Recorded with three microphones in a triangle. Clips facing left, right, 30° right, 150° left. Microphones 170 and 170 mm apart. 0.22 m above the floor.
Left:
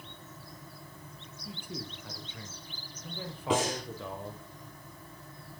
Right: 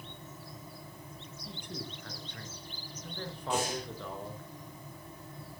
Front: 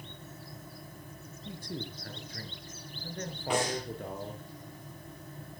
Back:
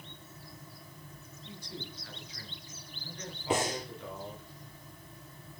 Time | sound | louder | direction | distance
1.4 | a man speaking | left 1 dB, front 5 dB | 5° left | 3.5 m
3.5 | breathing | left 4 dB, even | 85° left | 7 m